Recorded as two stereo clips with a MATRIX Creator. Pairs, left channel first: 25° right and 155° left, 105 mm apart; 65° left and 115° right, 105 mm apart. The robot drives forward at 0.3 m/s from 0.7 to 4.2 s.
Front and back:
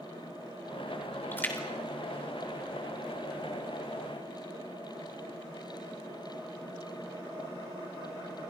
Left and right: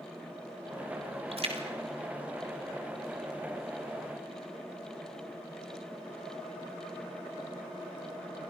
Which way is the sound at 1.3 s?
95° right.